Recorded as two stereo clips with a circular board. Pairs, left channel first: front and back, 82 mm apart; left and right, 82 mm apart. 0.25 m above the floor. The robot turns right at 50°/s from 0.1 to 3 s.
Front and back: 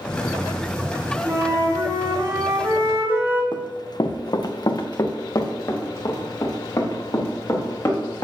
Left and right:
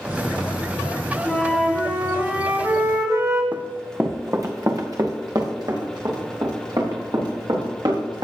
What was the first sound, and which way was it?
A flute, 155° left.